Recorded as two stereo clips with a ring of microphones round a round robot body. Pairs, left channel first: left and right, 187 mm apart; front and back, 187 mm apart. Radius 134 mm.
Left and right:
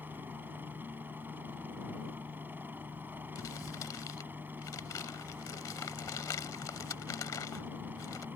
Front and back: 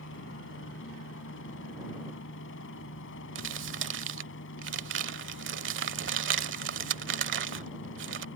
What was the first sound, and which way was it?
A helicopter, 10° right.